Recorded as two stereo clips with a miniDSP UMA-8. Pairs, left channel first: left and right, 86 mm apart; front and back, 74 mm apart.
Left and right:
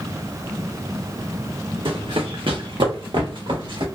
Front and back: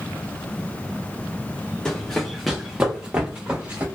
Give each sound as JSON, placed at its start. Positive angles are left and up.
{"t": 1.9, "sound": "running footsteps", "azimuth_deg": -80, "distance_m": 0.9}